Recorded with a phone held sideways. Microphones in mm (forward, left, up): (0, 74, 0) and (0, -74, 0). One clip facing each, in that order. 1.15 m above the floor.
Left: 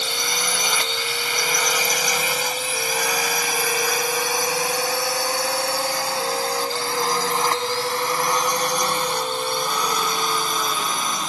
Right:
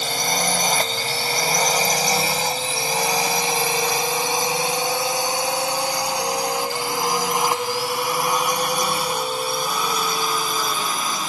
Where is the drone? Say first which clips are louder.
Right 4 dB; 45° right (ahead or behind); by 11.3 s centre (ahead or behind).